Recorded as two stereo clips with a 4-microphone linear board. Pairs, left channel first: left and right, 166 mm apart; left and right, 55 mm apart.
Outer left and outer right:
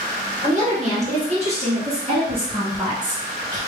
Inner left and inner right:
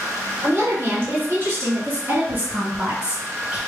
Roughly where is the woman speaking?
Right.